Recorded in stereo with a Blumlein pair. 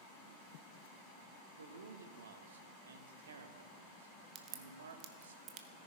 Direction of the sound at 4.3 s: 35° right.